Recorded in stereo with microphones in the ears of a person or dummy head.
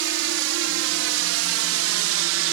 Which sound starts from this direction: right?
A drone, at 0.0 s.